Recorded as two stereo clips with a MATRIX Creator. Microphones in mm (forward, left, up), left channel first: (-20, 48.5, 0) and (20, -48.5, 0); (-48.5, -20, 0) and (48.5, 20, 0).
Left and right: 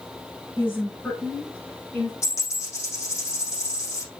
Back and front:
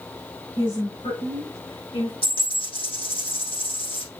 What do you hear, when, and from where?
0.6 s a woman speaking: straight behind, 4 m; by 2.1 s 165° right, 5 m
2.2 s a dropped coin: 175° left, 6 m